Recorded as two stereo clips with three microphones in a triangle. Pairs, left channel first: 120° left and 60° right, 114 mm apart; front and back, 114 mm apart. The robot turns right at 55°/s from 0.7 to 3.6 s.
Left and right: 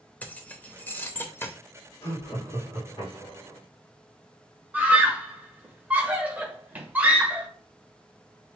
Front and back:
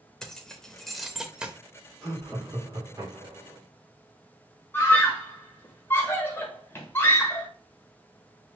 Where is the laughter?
75° left, 2.5 m; by 3.6 s 165° left, 2.5 m.